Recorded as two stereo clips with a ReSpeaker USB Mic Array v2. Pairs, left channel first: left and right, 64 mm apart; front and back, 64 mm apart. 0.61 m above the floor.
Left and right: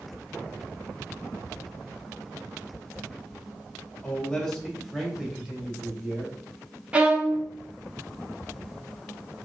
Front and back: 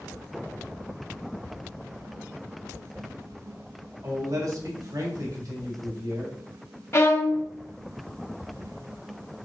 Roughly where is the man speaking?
Behind left.